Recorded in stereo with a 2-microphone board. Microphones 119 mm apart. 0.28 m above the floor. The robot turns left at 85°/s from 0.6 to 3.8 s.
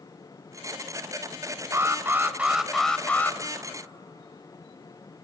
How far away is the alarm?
About 0.8 m.